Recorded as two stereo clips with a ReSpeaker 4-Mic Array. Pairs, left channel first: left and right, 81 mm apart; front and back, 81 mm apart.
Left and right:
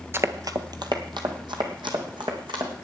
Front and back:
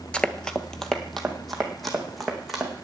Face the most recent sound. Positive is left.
turn(degrees=-90)